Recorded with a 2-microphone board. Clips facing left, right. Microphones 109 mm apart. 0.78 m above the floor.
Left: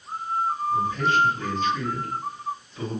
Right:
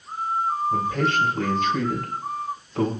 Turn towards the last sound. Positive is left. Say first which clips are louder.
# left 2 dB
turn(degrees=-80)